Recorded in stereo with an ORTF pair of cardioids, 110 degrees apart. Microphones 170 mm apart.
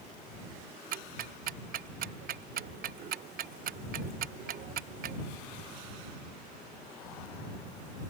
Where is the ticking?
55° right.